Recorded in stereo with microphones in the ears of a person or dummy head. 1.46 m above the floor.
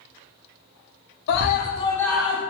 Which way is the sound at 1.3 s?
65° left (ahead or behind).